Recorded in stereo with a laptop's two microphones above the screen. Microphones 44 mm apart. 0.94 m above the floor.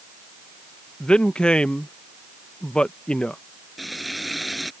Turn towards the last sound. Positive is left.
turn(degrees=0)  # may be behind; listen again after turning